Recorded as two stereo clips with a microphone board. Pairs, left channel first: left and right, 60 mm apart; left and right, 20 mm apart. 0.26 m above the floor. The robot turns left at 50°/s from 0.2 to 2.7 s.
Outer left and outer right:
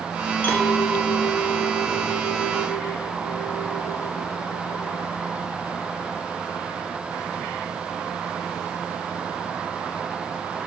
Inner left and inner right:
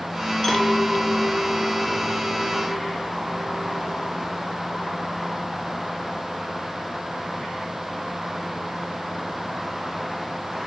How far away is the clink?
About 2.5 m.